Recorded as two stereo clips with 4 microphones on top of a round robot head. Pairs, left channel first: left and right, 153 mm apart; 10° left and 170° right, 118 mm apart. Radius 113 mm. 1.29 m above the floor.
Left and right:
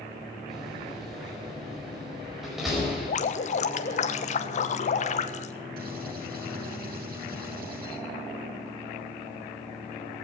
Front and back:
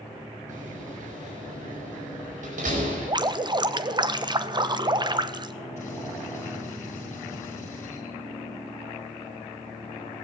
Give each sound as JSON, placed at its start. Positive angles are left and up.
{"t": 0.5, "sound": "a door slam", "azimuth_deg": 180, "distance_m": 5.0}
{"t": 3.1, "sound": "dripping", "azimuth_deg": 135, "distance_m": 1.1}
{"t": 5.8, "sound": "a gunshot", "azimuth_deg": -70, "distance_m": 7.5}